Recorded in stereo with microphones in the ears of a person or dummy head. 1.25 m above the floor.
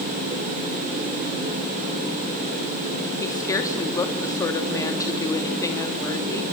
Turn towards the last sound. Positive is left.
turn(degrees=20)  # may be behind; listen again after turning